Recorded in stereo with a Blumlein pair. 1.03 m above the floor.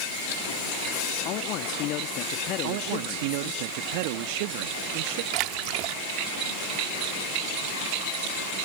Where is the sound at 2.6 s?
45° right.